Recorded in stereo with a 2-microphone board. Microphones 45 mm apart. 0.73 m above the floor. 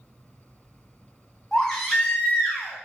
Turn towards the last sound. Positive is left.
turn(degrees=5)  # may be behind; listen again after turning